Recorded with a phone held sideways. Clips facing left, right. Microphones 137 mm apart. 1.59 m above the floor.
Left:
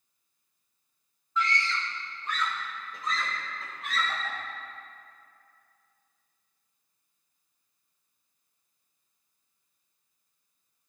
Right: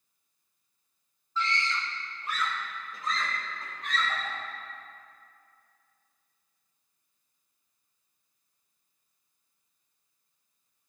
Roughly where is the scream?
Right.